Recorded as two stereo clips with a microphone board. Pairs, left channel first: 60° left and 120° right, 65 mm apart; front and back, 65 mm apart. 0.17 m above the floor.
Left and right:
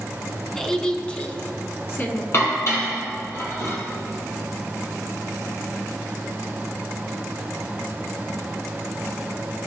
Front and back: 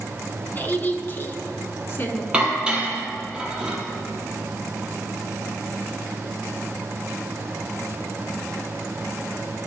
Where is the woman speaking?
10° right, 1.4 m; by 2.2 s 35° left, 1.7 m.